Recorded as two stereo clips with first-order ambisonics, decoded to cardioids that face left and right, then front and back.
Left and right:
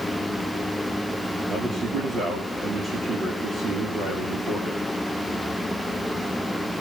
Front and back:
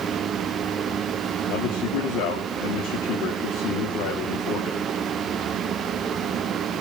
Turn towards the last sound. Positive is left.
turn(degrees=-25)